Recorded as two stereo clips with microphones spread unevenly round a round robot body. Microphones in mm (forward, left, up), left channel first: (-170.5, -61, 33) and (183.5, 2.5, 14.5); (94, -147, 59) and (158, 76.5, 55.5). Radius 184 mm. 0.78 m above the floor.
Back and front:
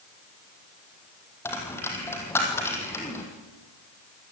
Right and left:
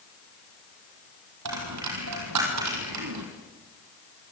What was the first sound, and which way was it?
A dropped coin, 105° left.